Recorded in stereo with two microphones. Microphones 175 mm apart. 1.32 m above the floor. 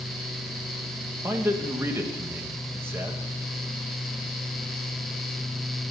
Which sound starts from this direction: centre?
A man speaking, at 1.2 s.